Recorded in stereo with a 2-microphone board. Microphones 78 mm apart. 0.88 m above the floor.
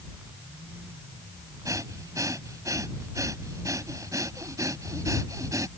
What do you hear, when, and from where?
1.6 s breathing: 45° right (ahead or behind)